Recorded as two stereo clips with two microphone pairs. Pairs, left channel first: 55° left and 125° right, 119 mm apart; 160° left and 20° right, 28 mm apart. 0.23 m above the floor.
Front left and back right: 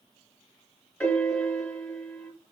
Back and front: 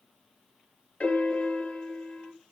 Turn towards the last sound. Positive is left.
turn(degrees=135)